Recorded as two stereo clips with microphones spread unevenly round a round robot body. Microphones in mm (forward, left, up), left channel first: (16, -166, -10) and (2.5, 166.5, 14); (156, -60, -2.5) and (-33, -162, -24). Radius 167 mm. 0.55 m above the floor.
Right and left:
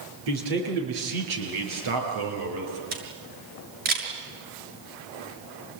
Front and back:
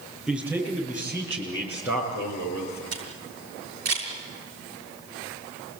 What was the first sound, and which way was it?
A man speaking, 120° left.